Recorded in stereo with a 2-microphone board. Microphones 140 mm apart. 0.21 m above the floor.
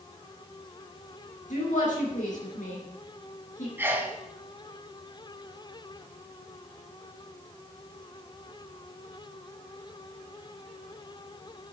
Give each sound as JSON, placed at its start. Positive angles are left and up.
{"t": 1.5, "sound": "a woman speaking", "side_deg": 70, "distance_m": 3.5}
{"t": 3.8, "sound": "a sneeze", "side_deg": -15, "distance_m": 1.8}